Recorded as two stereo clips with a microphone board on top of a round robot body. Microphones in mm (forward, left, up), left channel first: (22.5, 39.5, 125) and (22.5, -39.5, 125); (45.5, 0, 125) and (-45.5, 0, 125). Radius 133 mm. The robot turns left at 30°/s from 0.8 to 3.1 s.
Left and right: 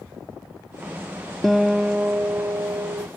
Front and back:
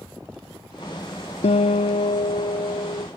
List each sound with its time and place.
1.4 s a guitar: straight ahead; by 3.1 s 50° right